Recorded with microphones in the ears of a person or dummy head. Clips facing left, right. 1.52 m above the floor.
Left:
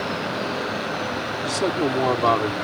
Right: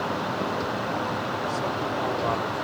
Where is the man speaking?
85° left; by 2.5 s 70° left (ahead or behind).